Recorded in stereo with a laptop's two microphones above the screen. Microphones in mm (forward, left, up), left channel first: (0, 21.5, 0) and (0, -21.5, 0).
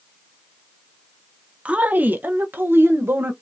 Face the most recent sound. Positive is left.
turn(degrees=-65)  # may be behind; listen again after turning